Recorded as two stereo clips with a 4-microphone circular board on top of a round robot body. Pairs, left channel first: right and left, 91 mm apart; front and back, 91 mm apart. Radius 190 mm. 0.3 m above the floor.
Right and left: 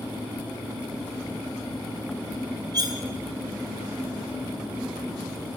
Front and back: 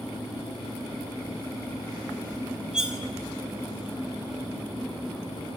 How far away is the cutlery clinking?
About 0.9 m.